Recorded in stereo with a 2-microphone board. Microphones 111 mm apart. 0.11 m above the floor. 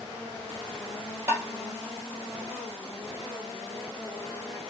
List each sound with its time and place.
1.3 s tapping: 20° right (ahead or behind), 1.6 m